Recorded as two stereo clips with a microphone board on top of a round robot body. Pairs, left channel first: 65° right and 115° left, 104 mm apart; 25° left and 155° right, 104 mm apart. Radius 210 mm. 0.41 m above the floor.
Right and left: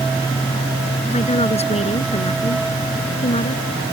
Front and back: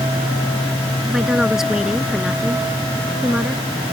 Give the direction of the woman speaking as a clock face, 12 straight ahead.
2 o'clock.